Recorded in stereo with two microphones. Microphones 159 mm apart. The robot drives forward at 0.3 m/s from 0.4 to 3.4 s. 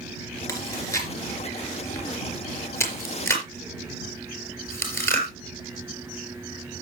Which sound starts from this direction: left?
Chewing, at 0.5 s.